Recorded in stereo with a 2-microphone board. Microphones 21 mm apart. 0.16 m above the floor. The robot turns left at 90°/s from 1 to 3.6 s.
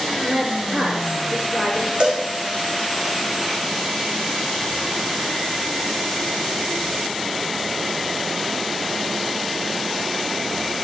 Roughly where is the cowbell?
Right.